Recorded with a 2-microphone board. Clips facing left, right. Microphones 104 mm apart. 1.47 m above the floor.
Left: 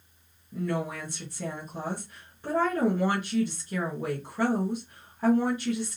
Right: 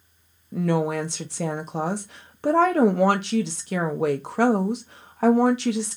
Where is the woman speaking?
85° right, 0.8 m.